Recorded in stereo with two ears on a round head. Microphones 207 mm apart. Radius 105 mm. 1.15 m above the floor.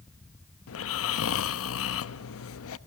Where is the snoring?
65° left (ahead or behind), 0.8 m.